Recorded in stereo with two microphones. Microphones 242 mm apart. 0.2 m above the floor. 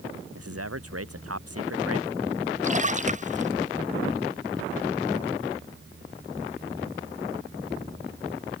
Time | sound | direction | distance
0.3 | a man speaking | 75° right (ahead or behind) | ?
2.6 | a splash | 30° right (ahead or behind) | ?